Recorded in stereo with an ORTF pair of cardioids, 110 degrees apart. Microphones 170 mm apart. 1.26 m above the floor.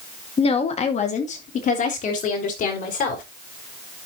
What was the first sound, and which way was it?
A woman speaking, 35° left.